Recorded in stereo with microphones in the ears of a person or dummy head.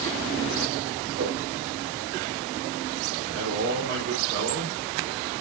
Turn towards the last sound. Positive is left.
turn(degrees=-60)  # may be behind; listen again after turning